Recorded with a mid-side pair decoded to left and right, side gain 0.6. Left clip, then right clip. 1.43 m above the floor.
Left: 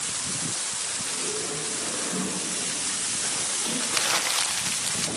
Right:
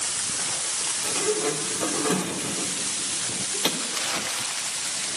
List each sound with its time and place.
1.0 s a sliding door: 70° right, 1.5 m
3.8 s crumpling: 30° left, 0.7 m